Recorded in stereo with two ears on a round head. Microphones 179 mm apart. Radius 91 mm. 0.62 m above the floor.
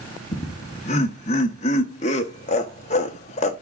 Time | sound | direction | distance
0.3 | laughter | 35° left (ahead or behind) | 0.7 m